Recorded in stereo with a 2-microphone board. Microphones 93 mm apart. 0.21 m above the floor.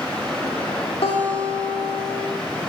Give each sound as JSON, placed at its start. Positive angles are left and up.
{"t": 0.0, "sound": "running water", "side_deg": 15, "distance_m": 9.5}
{"t": 1.0, "sound": "a guitar", "side_deg": 85, "distance_m": 7.5}